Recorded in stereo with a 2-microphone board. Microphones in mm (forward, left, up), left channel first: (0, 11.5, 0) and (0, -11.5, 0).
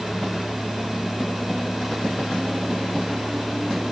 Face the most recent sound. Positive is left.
No sound to turn to.